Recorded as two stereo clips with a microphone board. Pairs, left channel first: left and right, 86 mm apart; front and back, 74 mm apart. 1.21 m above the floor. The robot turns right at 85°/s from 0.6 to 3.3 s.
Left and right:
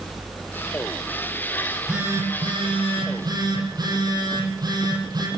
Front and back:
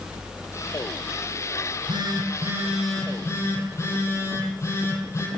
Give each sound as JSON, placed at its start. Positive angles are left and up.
{"t": 1.6, "sound": "a phone buzzing", "azimuth_deg": 165, "distance_m": 9.0}